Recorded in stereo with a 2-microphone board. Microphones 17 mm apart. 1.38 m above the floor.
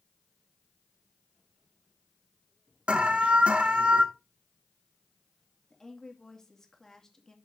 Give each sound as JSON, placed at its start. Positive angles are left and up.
{"t": 2.9, "sound": "an alarm", "side_deg": -85, "distance_m": 1.4}
{"t": 5.7, "sound": "a woman speaking", "side_deg": 30, "distance_m": 2.5}